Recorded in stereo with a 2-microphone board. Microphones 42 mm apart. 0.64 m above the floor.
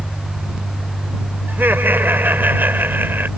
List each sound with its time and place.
1.5 s laughter: 55° right (ahead or behind)